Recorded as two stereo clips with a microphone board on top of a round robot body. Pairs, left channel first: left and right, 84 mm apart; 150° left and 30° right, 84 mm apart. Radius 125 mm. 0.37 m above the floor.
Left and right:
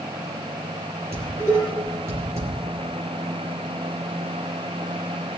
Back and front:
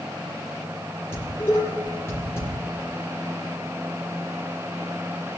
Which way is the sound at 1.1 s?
150° right.